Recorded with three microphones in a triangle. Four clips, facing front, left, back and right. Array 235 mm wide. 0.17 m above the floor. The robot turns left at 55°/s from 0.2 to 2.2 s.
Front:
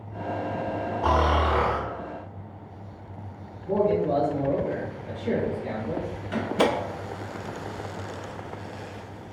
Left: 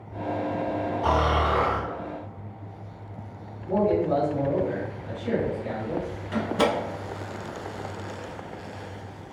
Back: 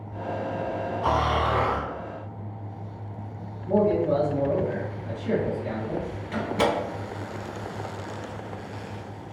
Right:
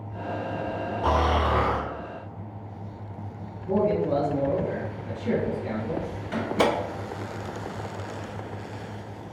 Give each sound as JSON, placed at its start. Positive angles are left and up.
{"t": 1.0, "sound": "snoring", "azimuth_deg": -25, "distance_m": 1.8}
{"t": 3.6, "sound": "a man speaking", "azimuth_deg": -40, "distance_m": 1.7}
{"t": 6.3, "sound": "a door slam", "azimuth_deg": -80, "distance_m": 1.2}